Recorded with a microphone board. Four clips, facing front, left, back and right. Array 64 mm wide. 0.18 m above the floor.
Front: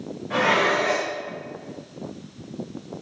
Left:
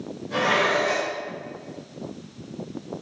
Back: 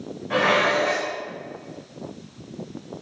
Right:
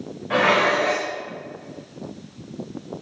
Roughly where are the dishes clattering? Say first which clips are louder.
Right 3 dB, back 1 dB; right.